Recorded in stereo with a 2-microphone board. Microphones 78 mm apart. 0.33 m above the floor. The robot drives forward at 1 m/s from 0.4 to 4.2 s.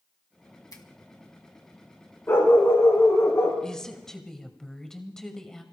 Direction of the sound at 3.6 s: 10° left (ahead or behind).